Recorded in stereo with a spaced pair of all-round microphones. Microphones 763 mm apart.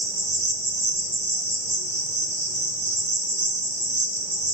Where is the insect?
40° right (ahead or behind), 1.0 m.